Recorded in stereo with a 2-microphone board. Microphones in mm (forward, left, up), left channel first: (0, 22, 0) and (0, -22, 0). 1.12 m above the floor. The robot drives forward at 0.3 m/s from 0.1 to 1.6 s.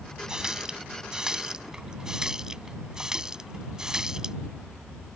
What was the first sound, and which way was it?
A running tap, 15° right (ahead or behind).